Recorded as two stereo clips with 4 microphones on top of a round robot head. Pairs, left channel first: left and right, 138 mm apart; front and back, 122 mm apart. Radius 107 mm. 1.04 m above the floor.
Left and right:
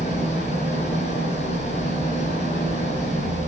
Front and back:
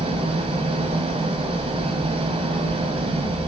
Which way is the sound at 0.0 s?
140° left.